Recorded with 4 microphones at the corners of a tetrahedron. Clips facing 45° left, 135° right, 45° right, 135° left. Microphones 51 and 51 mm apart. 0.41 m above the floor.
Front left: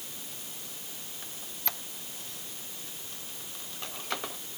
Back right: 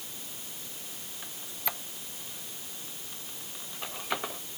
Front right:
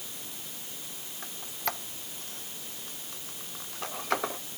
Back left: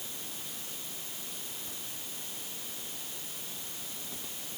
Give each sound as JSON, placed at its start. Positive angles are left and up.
{"t": 1.2, "sound": "a squeak", "azimuth_deg": -55}